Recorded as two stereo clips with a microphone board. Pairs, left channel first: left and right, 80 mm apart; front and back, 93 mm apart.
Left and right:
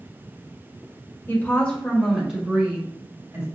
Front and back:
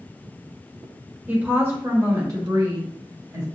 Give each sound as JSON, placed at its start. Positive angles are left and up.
{"t": 1.3, "sound": "a woman speaking", "azimuth_deg": 120, "distance_m": 1.4}